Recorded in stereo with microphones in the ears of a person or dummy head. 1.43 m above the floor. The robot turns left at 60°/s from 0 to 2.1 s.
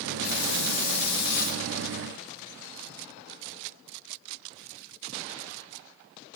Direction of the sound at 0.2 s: 130° left.